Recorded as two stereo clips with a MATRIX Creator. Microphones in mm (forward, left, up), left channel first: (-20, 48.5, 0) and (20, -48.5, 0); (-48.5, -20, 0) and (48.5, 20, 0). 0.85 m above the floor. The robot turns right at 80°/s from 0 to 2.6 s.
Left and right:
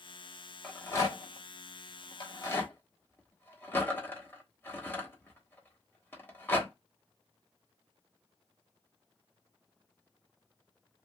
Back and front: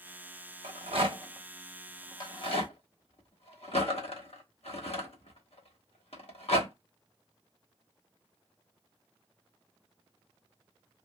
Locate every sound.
0.6 s a rattle: 25° left, 1.0 m; by 6.7 s 175° right, 1.0 m